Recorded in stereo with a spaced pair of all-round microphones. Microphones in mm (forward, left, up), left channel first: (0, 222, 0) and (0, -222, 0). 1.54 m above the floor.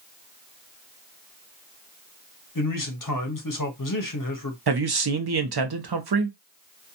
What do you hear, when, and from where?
2.5 s a man speaking: 50° left (ahead or behind), 0.7 m
4.7 s a man speaking: 60° right (ahead or behind), 0.6 m